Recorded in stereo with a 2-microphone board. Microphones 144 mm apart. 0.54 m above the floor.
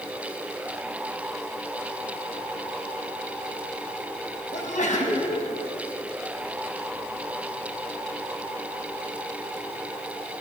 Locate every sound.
4.5 s a sneeze: 60° left (ahead or behind), 5 m